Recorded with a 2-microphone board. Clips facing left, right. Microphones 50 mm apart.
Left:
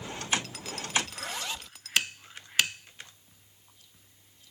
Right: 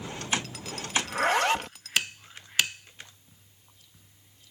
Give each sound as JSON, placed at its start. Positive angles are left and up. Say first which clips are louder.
{"t": 1.0, "sound": "a zipper", "louder": "right 13 dB", "side_deg": -65}